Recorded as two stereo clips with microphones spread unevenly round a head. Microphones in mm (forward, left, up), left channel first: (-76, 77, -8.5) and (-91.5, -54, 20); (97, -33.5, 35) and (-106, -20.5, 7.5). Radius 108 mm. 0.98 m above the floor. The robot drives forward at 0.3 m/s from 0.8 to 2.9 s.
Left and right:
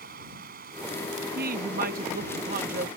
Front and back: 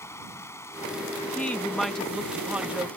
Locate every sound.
0.0 s running water: 80° right; by 3.0 s 85° right
1.4 s a woman speaking: 90° right; by 2.9 s 105° right